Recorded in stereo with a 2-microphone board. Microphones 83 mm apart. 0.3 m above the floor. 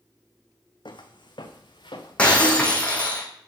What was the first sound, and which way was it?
Footsteps, 70° left (ahead or behind).